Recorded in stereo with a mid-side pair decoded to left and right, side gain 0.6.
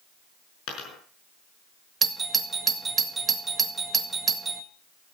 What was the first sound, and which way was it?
A dropped coin, 60° left.